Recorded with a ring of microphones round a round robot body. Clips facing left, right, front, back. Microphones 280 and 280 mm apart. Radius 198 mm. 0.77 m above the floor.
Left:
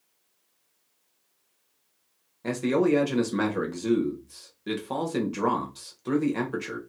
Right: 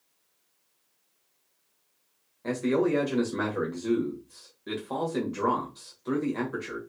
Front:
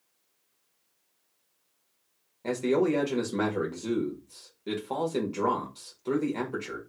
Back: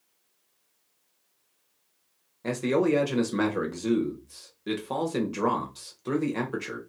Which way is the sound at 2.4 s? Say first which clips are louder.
Left 2 dB, back 1 dB; 115° left.